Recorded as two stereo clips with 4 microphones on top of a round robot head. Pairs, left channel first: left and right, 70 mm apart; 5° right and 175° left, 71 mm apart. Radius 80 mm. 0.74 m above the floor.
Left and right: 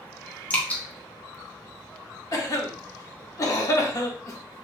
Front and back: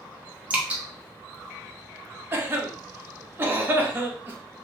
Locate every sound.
0.5 s dripping: 130° left, 1.0 m
2.3 s a cough: 120° left, 0.9 m